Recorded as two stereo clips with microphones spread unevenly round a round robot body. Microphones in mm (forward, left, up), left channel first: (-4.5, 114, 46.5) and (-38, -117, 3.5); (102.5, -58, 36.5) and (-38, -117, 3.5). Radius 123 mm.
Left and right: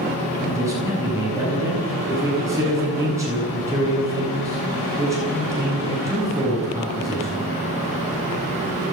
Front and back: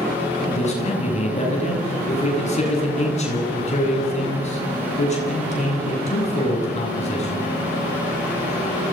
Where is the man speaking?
20° right, 9.5 m.